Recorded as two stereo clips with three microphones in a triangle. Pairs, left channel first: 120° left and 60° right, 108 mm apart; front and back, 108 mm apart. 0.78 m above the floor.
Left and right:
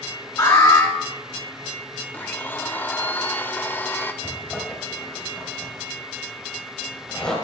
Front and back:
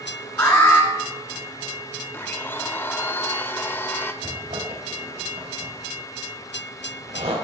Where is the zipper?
160° right, 2.5 m.